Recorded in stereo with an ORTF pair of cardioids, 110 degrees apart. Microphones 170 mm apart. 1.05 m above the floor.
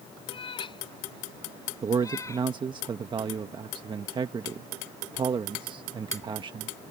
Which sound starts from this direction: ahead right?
A man speaking, at 1.8 s.